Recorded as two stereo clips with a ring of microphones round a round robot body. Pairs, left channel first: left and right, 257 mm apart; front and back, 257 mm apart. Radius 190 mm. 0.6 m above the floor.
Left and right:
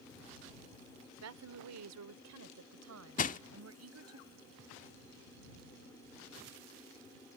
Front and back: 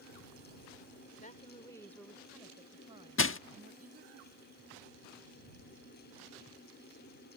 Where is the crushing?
30° left.